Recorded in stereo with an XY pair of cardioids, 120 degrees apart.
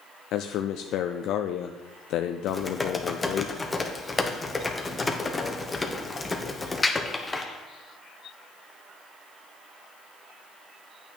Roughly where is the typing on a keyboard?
Ahead.